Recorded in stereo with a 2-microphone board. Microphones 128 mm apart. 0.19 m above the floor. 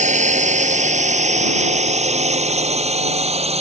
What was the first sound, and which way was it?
A drone, 70° right (ahead or behind).